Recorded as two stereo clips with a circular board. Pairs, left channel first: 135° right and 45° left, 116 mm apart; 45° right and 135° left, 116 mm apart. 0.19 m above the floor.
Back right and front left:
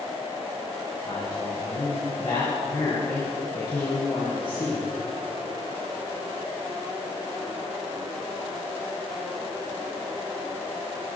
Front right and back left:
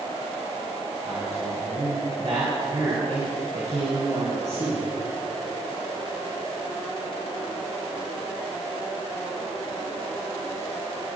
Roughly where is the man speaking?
Behind.